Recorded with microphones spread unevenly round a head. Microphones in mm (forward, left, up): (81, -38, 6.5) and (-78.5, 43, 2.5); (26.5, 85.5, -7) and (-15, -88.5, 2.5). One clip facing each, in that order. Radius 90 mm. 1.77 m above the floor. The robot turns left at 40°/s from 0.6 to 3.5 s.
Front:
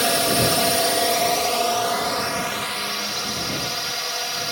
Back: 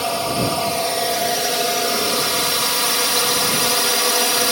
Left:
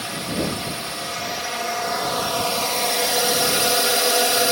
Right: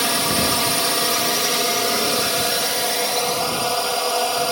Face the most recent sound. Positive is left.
turn(degrees=145)